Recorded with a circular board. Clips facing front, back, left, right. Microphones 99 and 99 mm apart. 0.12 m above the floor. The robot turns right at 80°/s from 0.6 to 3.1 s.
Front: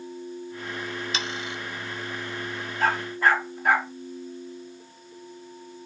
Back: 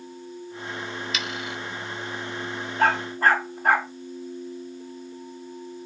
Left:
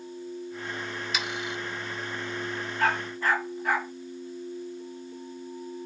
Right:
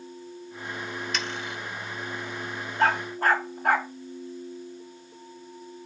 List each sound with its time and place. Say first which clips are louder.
1.1 s sawing: even, even; 15° left, 0.5 m; by 1.6 s 45° left, 0.5 m
2.8 s a dog barking: back 2 dB, right 4 dB; 160° right, 3.5 m; by 3.9 s 135° right, 3.5 m